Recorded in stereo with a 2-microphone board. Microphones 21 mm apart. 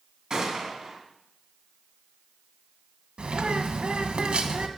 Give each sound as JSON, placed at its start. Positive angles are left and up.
{"t": 0.3, "sound": "a gunshot", "side_deg": -35, "distance_m": 2.5}
{"t": 3.2, "sound": "a bird", "side_deg": -70, "distance_m": 1.2}